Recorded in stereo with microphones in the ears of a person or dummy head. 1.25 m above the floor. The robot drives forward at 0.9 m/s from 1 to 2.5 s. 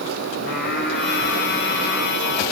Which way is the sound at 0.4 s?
50° left (ahead or behind).